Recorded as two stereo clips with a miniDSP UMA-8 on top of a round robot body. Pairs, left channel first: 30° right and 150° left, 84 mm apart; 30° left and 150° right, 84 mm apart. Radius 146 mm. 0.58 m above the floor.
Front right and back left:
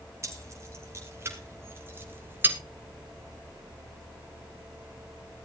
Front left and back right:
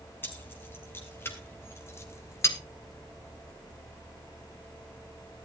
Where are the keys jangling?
95° left, 4.5 m; by 2.6 s 85° left, 2.5 m.